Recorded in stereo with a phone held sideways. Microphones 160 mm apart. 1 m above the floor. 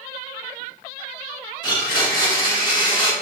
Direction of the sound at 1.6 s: 30° left (ahead or behind).